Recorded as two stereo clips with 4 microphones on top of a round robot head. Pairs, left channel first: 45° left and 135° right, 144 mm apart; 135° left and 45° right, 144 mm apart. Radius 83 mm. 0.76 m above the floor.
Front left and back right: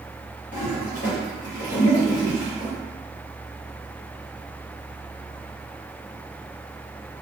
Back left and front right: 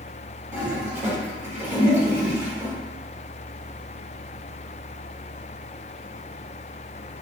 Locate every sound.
0.5 s a toilet flushing: 30° left, 1.5 m